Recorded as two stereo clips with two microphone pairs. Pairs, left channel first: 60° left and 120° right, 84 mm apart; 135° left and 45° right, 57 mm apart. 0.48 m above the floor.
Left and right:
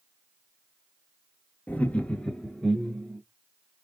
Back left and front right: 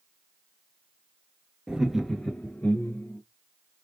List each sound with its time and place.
1.7 s laughter: 10° left, 0.8 m; by 3.2 s 165° left, 1.0 m